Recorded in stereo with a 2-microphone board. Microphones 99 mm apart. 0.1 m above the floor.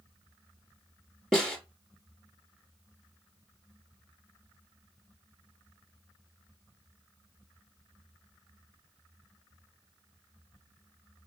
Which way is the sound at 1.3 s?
5° left (ahead or behind).